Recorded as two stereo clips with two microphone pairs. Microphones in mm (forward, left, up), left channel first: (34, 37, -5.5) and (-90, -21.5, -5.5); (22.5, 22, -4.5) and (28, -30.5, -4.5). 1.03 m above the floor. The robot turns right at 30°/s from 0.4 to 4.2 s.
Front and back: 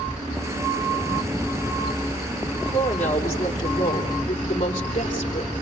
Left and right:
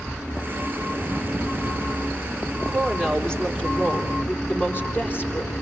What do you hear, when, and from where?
2.7 s a woman speaking: straight ahead, 3.5 m; by 5.5 s 45° left, 3.5 m